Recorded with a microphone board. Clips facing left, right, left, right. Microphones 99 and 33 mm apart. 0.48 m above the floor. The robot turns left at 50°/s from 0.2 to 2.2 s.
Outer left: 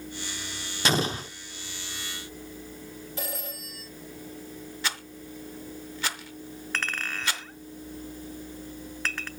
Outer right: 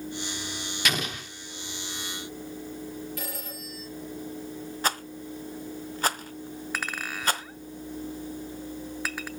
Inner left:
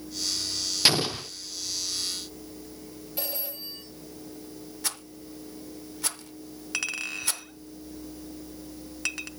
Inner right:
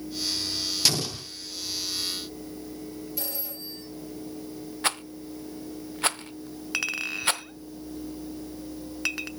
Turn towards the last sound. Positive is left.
turn(degrees=-10)  # may be behind; listen again after turning